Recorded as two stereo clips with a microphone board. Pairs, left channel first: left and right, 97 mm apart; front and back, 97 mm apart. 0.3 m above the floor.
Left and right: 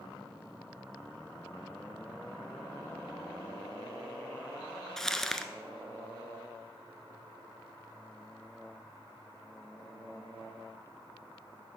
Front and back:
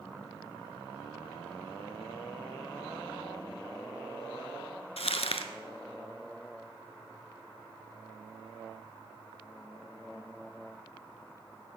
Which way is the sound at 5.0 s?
5° left.